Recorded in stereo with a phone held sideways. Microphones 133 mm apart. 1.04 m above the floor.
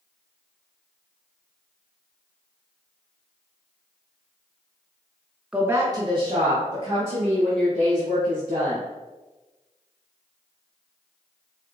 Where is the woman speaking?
5° right (ahead or behind), 0.5 m; by 8.8 s 60° right (ahead or behind), 2.5 m.